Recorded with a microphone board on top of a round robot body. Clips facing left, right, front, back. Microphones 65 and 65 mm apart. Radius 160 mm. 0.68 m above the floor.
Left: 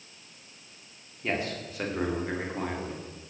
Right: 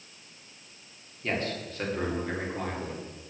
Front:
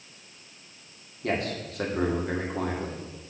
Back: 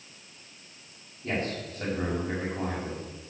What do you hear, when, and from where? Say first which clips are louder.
1.2 s a man speaking: even, front 2 dB; 10° left, 3 m